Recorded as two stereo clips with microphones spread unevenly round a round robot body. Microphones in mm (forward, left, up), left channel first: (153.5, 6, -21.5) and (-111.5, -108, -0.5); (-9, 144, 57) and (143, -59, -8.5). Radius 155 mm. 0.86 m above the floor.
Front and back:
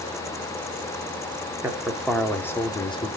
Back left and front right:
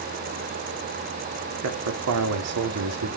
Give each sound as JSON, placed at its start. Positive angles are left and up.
{"t": 1.6, "sound": "a man speaking", "azimuth_deg": -70, "distance_m": 2.0}